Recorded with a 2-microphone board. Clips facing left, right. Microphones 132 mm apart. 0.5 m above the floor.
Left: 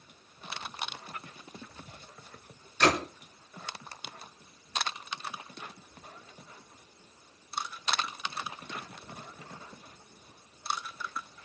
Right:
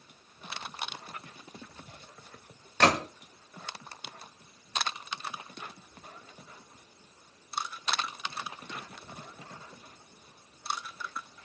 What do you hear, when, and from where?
2.8 s a gunshot: 75° right (ahead or behind), 1.8 m